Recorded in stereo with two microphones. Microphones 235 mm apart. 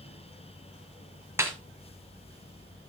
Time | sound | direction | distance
1.4 | a snare drum | 10° right (ahead or behind) | 2.5 m